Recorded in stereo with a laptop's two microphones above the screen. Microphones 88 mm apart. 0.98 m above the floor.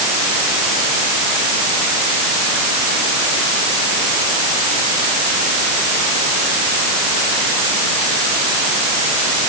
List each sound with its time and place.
Only background noise.